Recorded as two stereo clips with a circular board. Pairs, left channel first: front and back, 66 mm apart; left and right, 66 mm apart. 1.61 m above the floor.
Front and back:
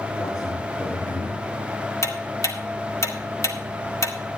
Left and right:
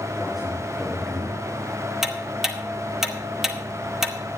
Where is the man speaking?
5° right, 3.5 m; by 1.4 s straight ahead, 3 m.